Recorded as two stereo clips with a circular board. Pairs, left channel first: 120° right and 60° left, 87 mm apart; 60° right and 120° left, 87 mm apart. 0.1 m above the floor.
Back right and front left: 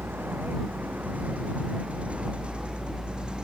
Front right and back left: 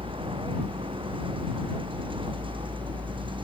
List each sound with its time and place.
0.0 s a vehicle: 130° left; by 3.5 s 140° left